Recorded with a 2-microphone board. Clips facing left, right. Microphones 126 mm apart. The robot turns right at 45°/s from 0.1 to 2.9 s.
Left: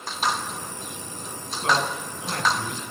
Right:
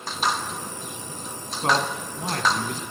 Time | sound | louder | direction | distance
1.6 | a man speaking | right 1 dB | 130° right | 1.9 m